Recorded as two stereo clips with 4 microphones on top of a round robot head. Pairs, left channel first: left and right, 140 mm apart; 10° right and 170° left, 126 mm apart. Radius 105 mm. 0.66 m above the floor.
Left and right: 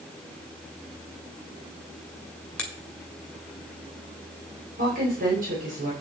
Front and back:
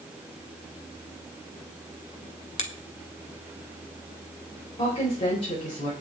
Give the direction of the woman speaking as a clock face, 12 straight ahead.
2 o'clock.